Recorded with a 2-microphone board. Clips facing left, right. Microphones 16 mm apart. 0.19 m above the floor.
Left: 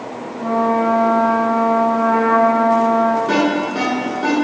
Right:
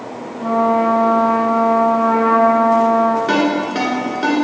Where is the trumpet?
5° right (ahead or behind), 1.6 m.